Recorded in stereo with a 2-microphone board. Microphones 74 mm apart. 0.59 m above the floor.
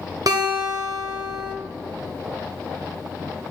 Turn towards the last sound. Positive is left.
turn(degrees=-60)  # may be behind; listen again after turning